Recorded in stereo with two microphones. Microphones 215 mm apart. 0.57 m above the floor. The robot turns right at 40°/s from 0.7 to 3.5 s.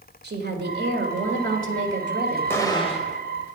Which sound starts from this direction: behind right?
A woman speaking, at 0.2 s.